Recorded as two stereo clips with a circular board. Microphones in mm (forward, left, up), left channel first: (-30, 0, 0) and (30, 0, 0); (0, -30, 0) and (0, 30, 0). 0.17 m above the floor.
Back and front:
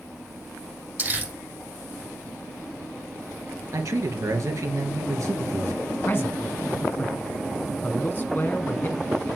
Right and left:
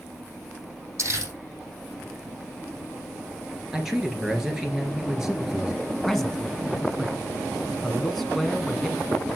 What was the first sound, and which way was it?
Crumpling, 55° left.